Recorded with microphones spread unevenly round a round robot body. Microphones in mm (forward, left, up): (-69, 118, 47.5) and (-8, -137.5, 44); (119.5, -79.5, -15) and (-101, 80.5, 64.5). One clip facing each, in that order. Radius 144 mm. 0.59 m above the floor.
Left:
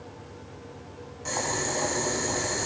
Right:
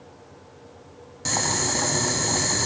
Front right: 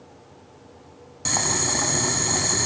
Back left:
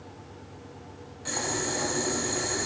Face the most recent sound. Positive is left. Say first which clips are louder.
# right 2 dB, front right 3 dB
turn(degrees=-35)